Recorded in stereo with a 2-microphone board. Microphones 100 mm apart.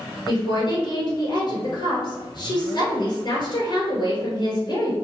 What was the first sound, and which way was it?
A woman speaking, 50° left (ahead or behind).